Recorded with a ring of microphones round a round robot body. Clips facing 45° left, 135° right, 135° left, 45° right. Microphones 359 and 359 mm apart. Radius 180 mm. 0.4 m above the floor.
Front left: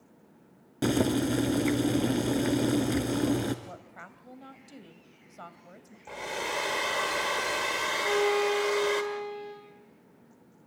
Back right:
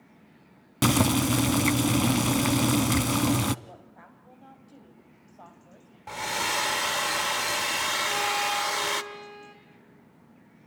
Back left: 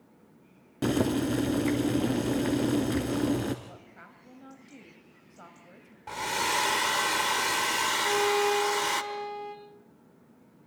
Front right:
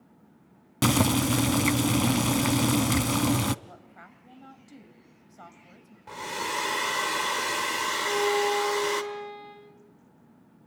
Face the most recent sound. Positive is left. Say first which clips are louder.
# front left 12 dB, front right 1 dB
turn(degrees=160)